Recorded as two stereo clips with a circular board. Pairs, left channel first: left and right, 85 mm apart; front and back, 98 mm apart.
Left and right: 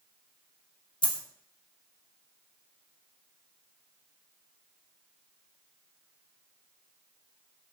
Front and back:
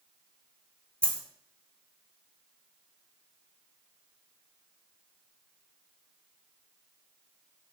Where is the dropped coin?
80° left, 0.6 m.